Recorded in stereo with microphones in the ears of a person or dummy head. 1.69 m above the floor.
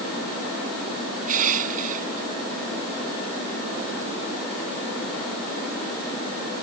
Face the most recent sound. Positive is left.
turn(degrees=-45)  # may be behind; listen again after turning